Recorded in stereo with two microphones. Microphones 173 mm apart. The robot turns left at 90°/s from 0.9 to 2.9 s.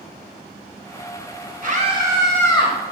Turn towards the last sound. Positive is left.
turn(degrees=115)